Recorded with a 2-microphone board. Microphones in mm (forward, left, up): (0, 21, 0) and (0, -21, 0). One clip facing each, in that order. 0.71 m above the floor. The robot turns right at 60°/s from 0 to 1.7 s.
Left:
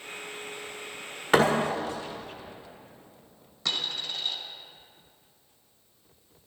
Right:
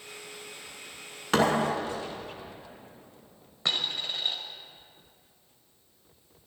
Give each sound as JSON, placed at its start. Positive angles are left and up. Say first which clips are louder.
{"t": 1.3, "sound": "a thud", "louder": "left 2 dB", "side_deg": 15, "distance_m": 1.8}
{"t": 3.6, "sound": "a dropped coin", "louder": "right 1 dB", "side_deg": -25, "distance_m": 1.8}